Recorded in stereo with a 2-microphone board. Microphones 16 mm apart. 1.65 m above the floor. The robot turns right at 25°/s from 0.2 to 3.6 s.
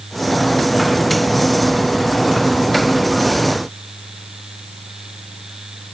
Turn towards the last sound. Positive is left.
No sound to turn to.